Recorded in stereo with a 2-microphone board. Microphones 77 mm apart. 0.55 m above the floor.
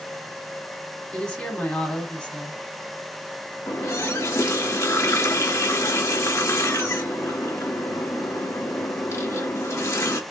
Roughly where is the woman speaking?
Centre.